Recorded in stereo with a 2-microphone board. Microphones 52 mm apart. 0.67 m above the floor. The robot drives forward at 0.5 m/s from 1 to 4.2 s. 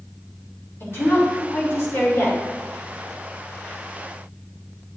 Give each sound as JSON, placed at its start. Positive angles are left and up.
{"t": 0.8, "sound": "a woman speaking", "side_deg": 50, "distance_m": 2.5}